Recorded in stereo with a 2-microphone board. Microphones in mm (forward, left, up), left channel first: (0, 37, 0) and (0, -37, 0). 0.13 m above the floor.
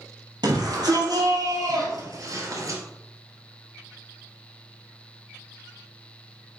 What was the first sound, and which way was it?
A shout, 65° right (ahead or behind).